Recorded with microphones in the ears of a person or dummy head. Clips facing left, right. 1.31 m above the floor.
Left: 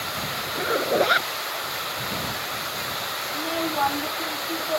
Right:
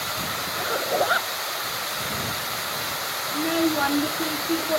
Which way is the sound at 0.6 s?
35° left (ahead or behind).